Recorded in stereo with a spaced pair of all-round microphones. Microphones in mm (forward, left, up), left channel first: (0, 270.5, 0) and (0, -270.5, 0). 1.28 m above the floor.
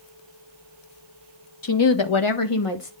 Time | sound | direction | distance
1.6 | a woman speaking | 40° left (ahead or behind) | 1.0 m